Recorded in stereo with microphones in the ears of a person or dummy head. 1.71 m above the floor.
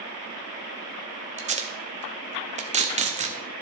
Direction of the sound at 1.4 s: 40° right (ahead or behind).